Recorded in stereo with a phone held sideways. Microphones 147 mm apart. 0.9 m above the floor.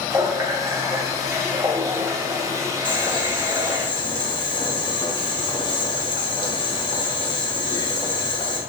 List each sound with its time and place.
0.1 s a running tap: 20° right (ahead or behind), 0.6 m
2.9 s boiling: 35° left (ahead or behind), 0.9 m